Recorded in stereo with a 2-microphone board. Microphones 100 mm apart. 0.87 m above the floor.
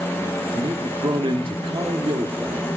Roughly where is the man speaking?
Right.